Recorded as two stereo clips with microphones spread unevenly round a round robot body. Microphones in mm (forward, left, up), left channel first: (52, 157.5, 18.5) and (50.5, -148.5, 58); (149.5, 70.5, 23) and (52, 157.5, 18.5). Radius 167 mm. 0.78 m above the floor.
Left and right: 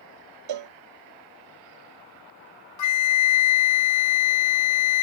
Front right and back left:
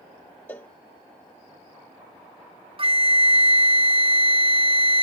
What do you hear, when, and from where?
0.5 s a cowbell: 120° right
2.8 s a flute: 95° left